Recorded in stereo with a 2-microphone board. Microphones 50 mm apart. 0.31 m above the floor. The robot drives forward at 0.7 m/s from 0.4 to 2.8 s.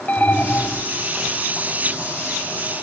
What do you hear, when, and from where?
0.1 s an alarm: 35° left (ahead or behind), 1.7 m; by 0.9 s 30° left (ahead or behind), 1.8 m